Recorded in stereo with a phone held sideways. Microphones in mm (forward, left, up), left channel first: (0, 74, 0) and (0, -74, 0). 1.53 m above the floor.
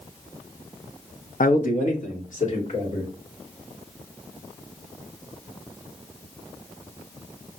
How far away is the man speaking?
About 0.5 m.